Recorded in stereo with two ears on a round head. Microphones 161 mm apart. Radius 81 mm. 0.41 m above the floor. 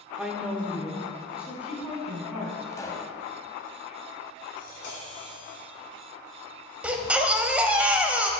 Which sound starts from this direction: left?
Tapping, at 4.6 s.